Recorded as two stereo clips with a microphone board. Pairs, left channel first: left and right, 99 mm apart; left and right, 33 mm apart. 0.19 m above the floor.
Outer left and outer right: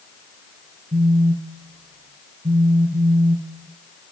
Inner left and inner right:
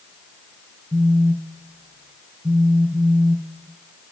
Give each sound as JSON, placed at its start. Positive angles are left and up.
{"t": 0.9, "sound": "a phone buzzing", "side_deg": -75, "distance_m": 0.7}